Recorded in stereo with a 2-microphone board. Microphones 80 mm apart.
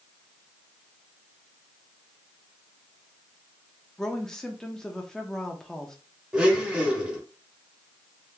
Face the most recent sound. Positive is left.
turn(degrees=-15)  # may be behind; listen again after turning